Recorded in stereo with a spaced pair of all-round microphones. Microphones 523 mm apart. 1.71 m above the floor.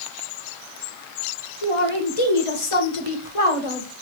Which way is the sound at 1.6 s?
80° left.